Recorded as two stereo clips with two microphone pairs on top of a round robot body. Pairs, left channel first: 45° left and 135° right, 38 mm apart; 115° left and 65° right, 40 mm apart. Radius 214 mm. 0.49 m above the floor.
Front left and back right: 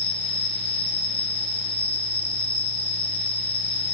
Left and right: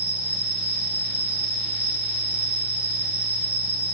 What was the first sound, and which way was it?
An insect, 20° right.